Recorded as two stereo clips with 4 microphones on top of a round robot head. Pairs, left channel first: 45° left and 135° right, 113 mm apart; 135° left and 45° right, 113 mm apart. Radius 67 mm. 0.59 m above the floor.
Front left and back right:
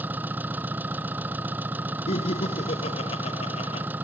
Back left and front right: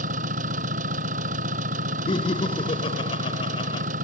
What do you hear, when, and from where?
0.0 s an engine running: 60° right
2.1 s laughter: 85° left